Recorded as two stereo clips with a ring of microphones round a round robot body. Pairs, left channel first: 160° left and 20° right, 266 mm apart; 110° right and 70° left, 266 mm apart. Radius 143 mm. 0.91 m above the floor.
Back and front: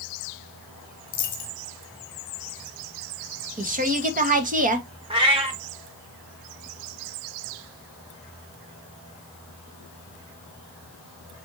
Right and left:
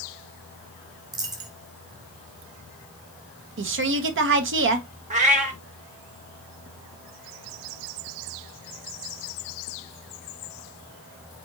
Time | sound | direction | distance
1.1 | a dropped coin | 140° left | 1.2 m
3.6 | a woman speaking | 35° left | 1.0 m
5.1 | a cat meowing | 30° left | 0.6 m